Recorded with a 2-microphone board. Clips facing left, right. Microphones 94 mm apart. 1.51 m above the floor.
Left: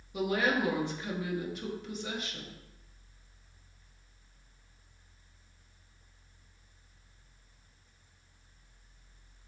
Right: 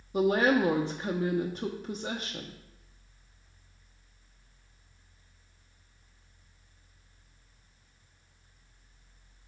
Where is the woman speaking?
35° right (ahead or behind), 0.7 m.